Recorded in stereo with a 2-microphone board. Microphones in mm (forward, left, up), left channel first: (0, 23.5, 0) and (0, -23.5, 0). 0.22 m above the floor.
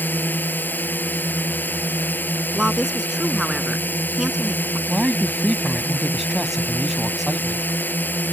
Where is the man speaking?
5° right (ahead or behind).